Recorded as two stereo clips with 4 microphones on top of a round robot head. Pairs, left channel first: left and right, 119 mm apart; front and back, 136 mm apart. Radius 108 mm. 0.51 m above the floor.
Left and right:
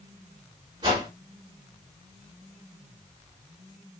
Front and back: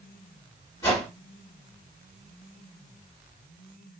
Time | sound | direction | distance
0.8 | a whoosh | 55° right | 1.8 m